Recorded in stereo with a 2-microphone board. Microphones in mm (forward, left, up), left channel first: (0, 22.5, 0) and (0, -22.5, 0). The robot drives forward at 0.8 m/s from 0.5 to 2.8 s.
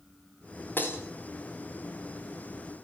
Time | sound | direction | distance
0.8 | breaking glass | 50° left (ahead or behind) | 6.5 m